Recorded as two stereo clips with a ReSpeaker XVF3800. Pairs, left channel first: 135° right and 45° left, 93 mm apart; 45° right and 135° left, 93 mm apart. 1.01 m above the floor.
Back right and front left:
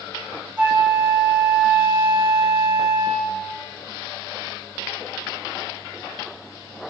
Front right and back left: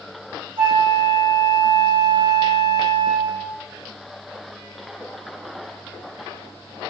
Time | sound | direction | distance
0.6 | a flute | 115° left | 1.5 m